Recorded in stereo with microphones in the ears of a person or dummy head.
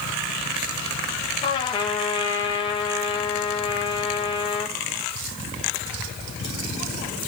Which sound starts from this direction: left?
A trumpet, at 1.4 s.